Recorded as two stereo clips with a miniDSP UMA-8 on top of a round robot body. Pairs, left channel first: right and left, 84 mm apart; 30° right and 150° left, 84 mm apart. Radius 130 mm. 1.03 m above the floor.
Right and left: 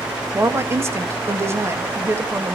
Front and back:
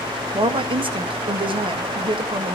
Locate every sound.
0.3 s a woman speaking: 150° left, 1.7 m